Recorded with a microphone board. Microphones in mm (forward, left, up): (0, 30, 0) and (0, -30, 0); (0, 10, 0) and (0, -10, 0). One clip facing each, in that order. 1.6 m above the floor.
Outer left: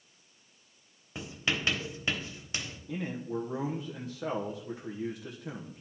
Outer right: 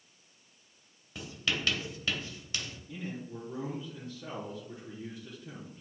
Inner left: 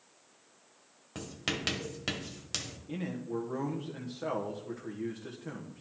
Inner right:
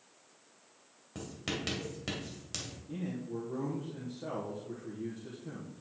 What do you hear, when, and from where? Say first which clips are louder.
1.1 s writing: outer left 2 dB, inner left 3 dB; 25° left (ahead or behind), 1.5 m
2.9 s a man speaking: outer left 7 dB, inner left 3 dB; 75° left (ahead or behind), 1.3 m